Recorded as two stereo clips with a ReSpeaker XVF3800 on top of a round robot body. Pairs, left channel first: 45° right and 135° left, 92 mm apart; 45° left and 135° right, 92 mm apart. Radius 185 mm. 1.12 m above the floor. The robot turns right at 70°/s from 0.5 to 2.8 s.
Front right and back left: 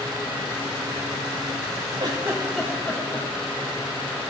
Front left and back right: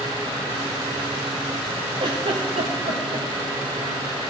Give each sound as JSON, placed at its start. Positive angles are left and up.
{"t": 2.0, "sound": "a giggle", "azimuth_deg": -175, "distance_m": 0.9}